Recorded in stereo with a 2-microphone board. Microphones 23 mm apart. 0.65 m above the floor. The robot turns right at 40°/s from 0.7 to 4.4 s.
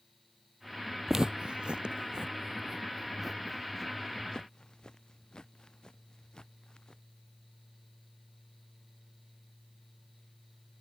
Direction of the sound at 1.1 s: 20° right (ahead or behind).